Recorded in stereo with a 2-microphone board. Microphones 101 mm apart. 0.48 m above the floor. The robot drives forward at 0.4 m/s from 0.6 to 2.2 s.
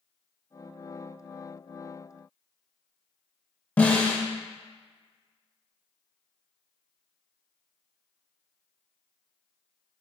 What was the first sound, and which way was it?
A snare drum, 15° left (ahead or behind).